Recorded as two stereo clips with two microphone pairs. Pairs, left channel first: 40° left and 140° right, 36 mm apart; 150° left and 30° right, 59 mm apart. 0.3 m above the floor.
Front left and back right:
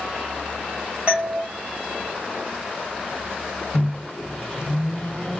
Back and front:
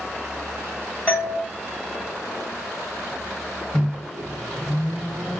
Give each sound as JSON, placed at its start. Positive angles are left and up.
{"t": 1.1, "sound": "a doorbell", "azimuth_deg": -175, "distance_m": 2.0}
{"t": 3.7, "sound": "a microwave", "azimuth_deg": 70, "distance_m": 0.8}